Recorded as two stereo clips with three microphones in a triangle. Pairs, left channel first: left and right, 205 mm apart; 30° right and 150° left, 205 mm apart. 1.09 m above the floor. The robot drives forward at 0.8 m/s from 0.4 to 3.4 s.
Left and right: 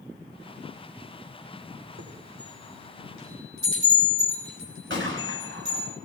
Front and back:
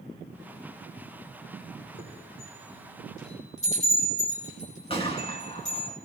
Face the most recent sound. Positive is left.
turn(degrees=-90)